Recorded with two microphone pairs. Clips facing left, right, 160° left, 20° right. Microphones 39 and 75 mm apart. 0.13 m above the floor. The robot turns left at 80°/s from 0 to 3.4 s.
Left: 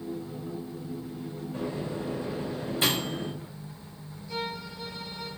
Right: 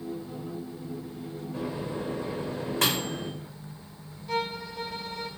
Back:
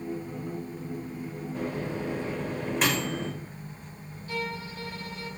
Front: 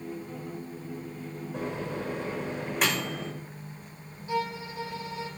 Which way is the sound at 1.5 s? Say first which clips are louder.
Even, back 1 dB; 5° right.